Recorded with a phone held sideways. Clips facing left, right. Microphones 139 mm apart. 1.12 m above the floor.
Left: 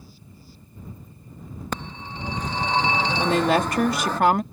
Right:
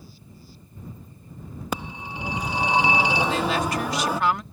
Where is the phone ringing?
10° right (ahead or behind).